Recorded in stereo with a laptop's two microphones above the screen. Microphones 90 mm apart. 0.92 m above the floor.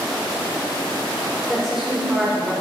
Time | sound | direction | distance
1.5 | a woman speaking | centre (ahead or behind) | 1.2 m